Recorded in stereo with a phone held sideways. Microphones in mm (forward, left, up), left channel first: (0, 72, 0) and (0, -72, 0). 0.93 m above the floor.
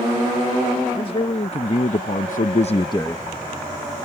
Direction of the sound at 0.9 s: 40° left (ahead or behind).